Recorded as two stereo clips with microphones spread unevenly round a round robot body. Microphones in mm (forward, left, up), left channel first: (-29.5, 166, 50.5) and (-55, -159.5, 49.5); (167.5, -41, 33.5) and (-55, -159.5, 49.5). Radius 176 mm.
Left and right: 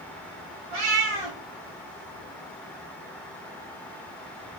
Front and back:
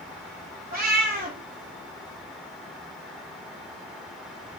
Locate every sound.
0.7 s a cat meowing: 100° right, 7.5 m